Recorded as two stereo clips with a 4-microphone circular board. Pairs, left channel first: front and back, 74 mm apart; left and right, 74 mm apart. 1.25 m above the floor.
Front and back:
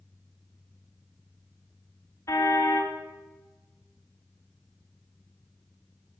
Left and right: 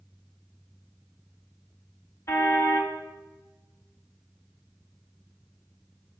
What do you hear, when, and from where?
2.3 s a car horn: 45° left, 4 m